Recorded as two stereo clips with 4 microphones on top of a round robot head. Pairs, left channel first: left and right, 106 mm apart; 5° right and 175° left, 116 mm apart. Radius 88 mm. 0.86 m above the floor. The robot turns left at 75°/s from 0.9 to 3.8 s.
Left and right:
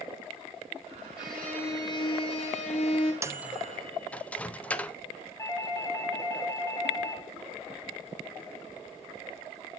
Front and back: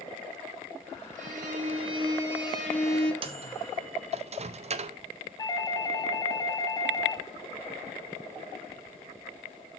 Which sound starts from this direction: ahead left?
A doorbell, at 5.4 s.